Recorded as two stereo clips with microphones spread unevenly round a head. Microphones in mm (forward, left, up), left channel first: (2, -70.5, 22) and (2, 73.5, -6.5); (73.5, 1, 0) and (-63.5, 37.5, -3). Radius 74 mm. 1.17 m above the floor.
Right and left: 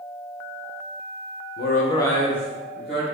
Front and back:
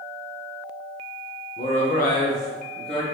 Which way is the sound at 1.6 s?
75° right.